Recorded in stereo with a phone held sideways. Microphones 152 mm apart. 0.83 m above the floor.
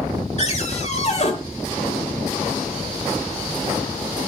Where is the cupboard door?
45° left (ahead or behind), 1.7 m.